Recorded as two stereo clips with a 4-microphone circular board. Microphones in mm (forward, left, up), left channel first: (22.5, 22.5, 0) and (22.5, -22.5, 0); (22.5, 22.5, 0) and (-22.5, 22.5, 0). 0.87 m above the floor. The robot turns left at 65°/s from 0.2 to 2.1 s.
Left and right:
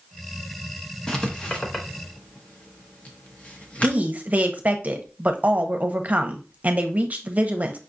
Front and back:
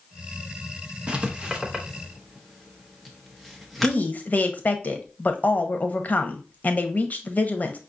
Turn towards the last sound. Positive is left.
turn(degrees=-45)